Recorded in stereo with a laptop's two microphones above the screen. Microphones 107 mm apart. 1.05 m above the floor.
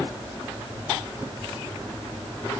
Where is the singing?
No singing in this recording.